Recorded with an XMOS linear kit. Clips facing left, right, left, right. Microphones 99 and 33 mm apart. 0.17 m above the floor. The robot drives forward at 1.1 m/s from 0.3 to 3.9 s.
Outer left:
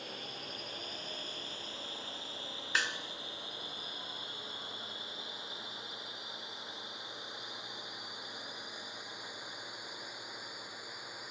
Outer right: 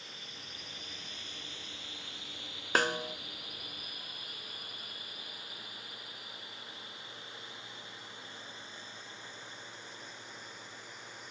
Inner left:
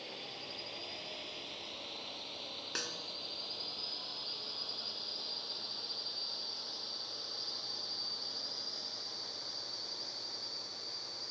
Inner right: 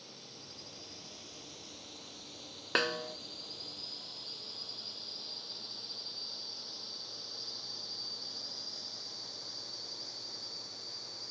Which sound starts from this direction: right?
A snare drum, at 2.8 s.